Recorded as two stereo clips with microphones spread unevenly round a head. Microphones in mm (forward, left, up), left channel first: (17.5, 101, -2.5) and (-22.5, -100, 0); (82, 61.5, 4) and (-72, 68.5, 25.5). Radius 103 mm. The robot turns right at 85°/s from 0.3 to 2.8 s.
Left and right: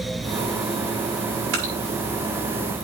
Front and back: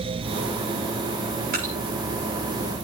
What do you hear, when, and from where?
1.5 s dripping: 135° right, 6.5 m; by 1.7 s 120° right, 6.5 m